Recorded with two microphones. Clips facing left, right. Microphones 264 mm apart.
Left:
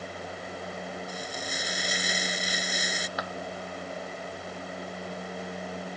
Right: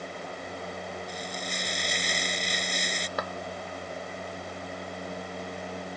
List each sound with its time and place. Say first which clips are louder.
1.1 s frying: even; 5° left (ahead or behind)
3.2 s a clap: right 6 dB; 50° right (ahead or behind)